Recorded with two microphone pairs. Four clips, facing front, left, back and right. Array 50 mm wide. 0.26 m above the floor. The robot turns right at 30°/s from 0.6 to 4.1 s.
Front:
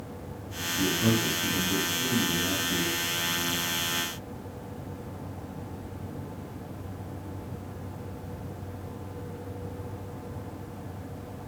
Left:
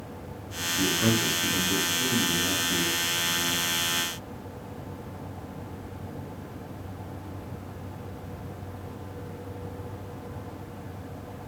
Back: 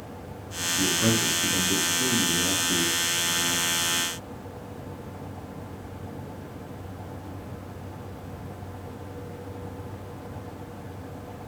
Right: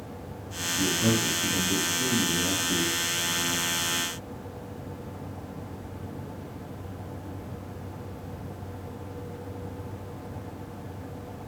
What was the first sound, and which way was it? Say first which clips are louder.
A man speaking: left 1 dB, back 1 dB; 135° left.